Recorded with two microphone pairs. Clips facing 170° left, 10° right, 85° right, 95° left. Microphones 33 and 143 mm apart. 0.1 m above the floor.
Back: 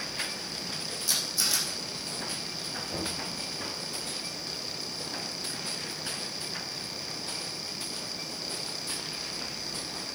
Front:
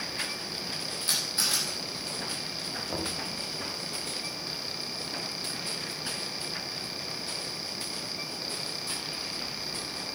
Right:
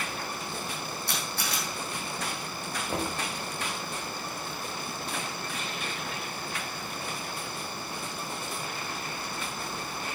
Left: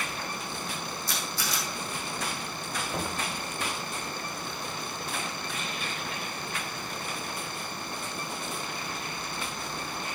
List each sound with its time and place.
1.1 s a camera shutter: 60° right, 5 m
2.9 s knocking: 60° right, 3 m